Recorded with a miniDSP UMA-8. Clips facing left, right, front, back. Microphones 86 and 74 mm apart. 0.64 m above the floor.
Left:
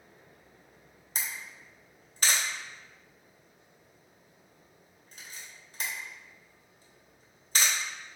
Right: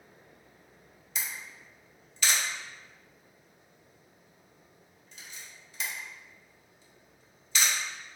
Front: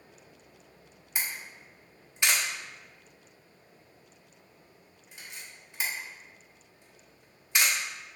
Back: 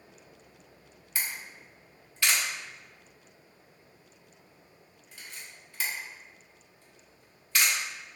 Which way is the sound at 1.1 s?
65° left.